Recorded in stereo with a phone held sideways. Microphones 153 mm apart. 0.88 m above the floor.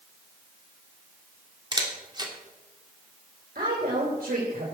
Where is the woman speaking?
80° right, 3.5 m.